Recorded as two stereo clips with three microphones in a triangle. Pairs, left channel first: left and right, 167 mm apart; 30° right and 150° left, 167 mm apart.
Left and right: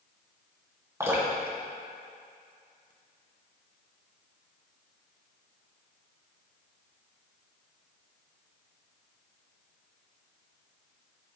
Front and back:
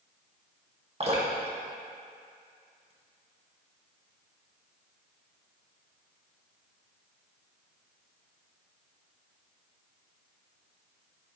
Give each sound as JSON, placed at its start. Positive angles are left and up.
{"t": 1.0, "sound": "dripping", "azimuth_deg": -160, "distance_m": 2.0}